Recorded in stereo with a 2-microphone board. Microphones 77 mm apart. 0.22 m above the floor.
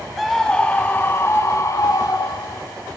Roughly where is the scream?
Centre.